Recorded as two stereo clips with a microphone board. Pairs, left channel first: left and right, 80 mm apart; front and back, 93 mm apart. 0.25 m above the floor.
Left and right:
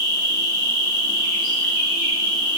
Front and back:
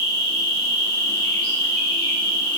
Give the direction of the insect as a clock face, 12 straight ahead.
1 o'clock.